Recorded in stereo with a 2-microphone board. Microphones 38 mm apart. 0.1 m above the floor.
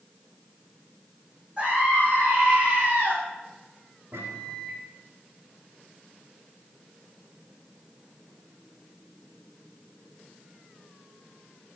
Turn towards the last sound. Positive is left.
turn(degrees=-75)  # may be behind; listen again after turning